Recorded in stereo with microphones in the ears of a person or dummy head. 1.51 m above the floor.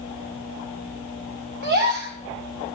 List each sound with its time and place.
1.6 s a gasp: 50° right (ahead or behind), 1.5 m